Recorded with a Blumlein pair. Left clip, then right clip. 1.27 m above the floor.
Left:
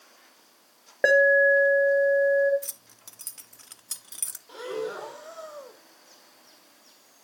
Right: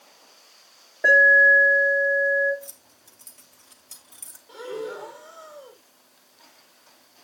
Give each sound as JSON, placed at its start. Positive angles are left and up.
{"t": 1.0, "sound": "an alarm", "azimuth_deg": 60, "distance_m": 1.8}
{"t": 2.6, "sound": "keys jangling", "azimuth_deg": 65, "distance_m": 0.7}
{"t": 4.5, "sound": "breathing", "azimuth_deg": 10, "distance_m": 1.0}